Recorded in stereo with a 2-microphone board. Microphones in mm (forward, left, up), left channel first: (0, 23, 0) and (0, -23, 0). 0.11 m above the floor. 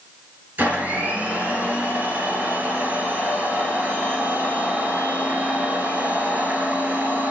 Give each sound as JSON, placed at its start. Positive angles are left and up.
{"t": 0.6, "sound": "a blender", "side_deg": -40, "distance_m": 2.5}